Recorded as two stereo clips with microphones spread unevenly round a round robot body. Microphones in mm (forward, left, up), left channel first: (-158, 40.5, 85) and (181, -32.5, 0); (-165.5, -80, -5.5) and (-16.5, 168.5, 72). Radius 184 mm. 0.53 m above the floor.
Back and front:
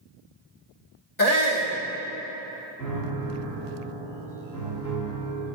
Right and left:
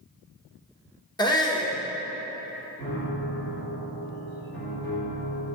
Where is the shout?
175° right, 1.5 m.